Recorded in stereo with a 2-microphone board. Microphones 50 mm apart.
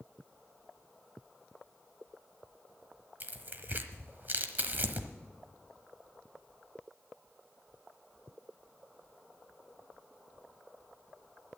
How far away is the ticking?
No ticking in this recording.